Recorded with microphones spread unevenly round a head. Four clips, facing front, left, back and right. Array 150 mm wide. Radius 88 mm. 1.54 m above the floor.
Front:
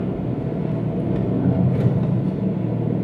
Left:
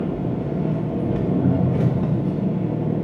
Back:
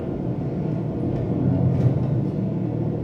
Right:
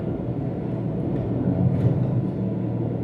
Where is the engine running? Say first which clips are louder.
Left 3 dB, front 2 dB; 65° left, 1.3 m.